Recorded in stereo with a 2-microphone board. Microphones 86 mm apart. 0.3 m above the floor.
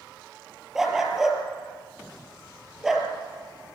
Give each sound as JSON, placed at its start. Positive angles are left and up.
{"t": 0.8, "sound": "a dog barking", "side_deg": -5, "distance_m": 3.5}